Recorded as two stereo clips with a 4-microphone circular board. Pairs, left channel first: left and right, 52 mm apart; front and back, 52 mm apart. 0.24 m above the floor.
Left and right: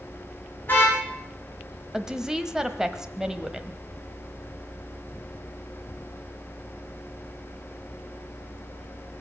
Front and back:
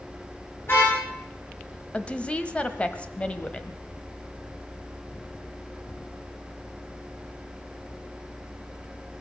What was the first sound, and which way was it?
A car horn, 35° left.